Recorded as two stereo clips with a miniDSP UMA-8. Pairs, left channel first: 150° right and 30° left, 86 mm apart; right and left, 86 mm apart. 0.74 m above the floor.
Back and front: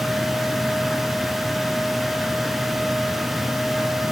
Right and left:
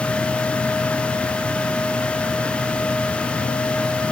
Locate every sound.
Only background noise.